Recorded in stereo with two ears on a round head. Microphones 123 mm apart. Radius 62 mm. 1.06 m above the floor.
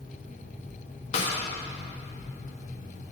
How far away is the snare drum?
About 1.3 m.